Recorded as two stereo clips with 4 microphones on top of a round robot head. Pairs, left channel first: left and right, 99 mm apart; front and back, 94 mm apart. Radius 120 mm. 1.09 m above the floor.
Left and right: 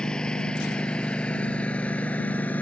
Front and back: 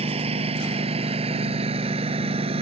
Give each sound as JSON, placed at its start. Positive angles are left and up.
{"t": 0.0, "sound": "a lawn mower", "azimuth_deg": 175}